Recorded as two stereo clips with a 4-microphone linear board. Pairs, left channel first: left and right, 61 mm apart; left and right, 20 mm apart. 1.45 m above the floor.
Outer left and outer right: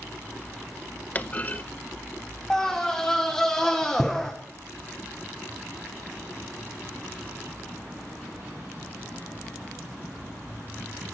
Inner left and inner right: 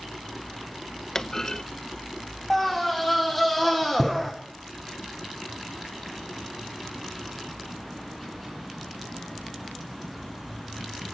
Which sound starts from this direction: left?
A clunk, at 1.1 s.